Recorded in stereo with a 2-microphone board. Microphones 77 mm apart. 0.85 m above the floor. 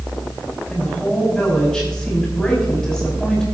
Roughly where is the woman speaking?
Centre.